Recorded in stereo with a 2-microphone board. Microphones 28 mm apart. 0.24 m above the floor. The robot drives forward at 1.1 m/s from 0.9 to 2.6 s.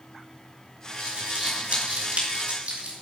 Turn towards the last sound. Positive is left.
turn(degrees=-65)  # may be behind; listen again after turning